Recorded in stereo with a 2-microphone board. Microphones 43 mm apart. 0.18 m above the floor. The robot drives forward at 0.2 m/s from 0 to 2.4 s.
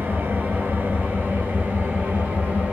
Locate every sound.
0.0 s an engine running: 50° right (ahead or behind), 1.0 m; by 2.7 s 35° right (ahead or behind), 1.3 m